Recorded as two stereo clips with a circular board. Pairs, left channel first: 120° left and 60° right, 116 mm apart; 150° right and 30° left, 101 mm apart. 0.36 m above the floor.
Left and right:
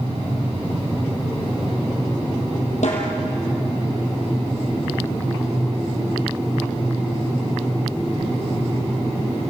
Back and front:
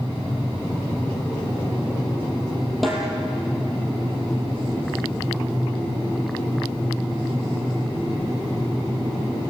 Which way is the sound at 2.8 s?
120° left.